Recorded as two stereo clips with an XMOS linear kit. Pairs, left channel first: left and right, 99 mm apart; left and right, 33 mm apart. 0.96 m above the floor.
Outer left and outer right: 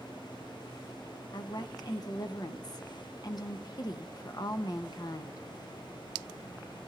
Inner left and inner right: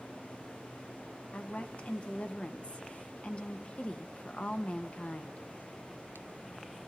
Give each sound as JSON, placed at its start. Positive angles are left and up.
{"t": 1.3, "sound": "a woman speaking", "side_deg": 45, "distance_m": 1.2}